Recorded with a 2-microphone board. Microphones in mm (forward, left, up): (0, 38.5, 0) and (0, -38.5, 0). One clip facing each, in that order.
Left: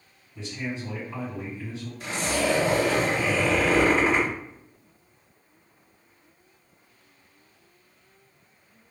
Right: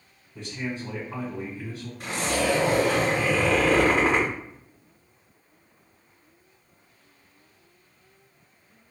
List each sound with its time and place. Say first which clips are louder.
0.3 s a man speaking: even; 60° right (ahead or behind), 1.9 m
2.0 s a zipper: right 1 dB; 60° right (ahead or behind), 1.8 m